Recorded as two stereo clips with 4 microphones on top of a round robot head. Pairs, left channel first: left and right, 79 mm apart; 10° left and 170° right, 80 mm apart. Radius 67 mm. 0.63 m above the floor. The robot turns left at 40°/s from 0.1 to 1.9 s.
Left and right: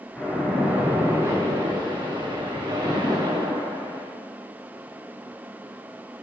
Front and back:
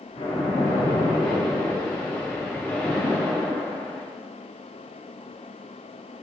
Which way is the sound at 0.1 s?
10° left.